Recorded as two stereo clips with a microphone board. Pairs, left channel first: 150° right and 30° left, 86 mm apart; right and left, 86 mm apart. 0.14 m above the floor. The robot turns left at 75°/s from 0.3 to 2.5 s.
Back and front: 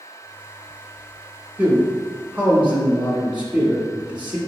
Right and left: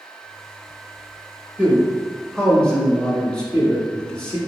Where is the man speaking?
45° left, 1.2 m; by 4.4 s 25° right, 1.2 m.